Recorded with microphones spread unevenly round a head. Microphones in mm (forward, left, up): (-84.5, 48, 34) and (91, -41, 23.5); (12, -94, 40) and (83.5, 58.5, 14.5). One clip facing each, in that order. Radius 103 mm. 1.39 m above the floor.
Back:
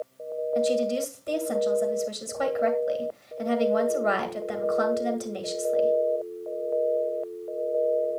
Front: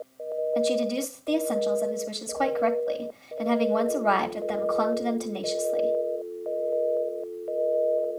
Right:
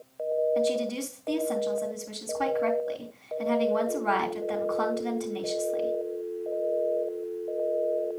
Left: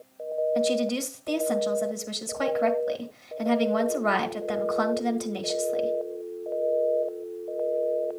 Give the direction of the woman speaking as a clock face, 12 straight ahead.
9 o'clock.